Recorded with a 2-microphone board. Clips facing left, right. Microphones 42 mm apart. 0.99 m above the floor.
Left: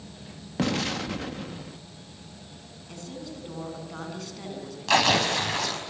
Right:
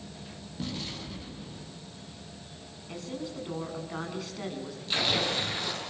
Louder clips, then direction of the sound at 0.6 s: Left 10 dB; 70° left (ahead or behind).